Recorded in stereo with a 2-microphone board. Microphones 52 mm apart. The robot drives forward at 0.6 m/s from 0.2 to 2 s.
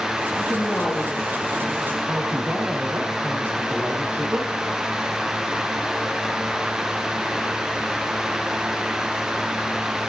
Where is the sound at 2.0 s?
35° right (ahead or behind), 6.5 m.